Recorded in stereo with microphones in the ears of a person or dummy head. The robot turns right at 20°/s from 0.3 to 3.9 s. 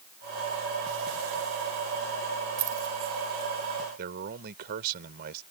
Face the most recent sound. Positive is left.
turn(degrees=-50)  # may be behind; listen again after turning